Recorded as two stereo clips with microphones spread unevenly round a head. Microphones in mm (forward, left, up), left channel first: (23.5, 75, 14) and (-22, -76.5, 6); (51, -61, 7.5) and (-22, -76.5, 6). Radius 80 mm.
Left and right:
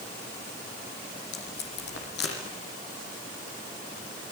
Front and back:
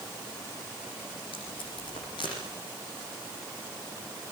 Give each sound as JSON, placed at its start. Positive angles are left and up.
{"t": 1.3, "sound": "tape being pulled", "azimuth_deg": 50, "distance_m": 9.5}